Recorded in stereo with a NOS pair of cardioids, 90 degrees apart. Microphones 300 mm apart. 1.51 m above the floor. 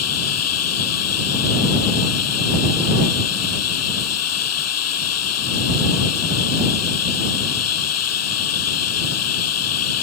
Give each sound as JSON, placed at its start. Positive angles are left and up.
{"t": 0.0, "sound": "running water", "azimuth_deg": 55}